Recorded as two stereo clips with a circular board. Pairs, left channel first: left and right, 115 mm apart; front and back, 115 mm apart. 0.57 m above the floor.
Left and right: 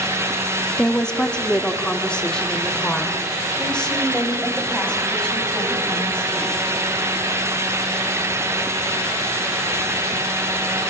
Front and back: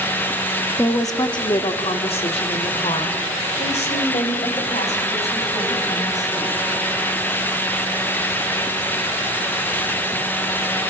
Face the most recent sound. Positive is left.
turn(degrees=10)